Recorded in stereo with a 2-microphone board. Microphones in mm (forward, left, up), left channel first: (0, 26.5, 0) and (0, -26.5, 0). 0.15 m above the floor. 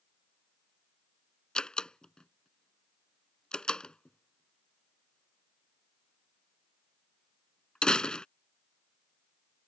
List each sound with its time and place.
1.6 s a door slam: 15° left (ahead or behind)